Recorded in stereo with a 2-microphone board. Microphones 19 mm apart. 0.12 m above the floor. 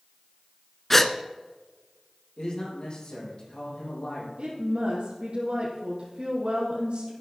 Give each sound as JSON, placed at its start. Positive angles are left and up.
{"t": 0.9, "sound": "a gasp", "side_deg": 15, "distance_m": 0.7}
{"t": 2.4, "sound": "a man speaking", "side_deg": 50, "distance_m": 6.0}
{"t": 4.4, "sound": "a woman speaking", "side_deg": -70, "distance_m": 3.5}